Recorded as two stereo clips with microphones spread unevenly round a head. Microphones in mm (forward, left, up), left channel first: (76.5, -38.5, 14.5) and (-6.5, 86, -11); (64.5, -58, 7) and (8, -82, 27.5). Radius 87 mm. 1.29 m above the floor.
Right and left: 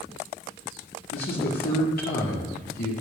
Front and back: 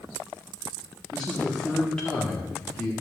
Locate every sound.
1.1 s a man speaking: 45° right, 1.9 m